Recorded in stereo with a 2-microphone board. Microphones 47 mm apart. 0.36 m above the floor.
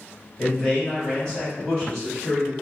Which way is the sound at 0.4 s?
10° left (ahead or behind).